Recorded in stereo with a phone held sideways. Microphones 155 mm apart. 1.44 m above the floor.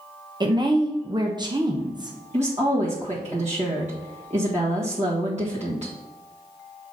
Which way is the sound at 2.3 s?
50° right (ahead or behind).